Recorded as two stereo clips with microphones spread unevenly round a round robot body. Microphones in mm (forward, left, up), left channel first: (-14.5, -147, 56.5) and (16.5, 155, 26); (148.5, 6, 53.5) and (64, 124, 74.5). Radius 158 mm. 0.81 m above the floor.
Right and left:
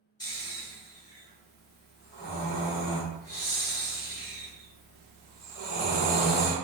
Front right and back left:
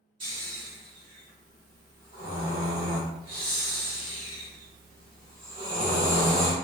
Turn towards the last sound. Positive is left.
turn(degrees=-175)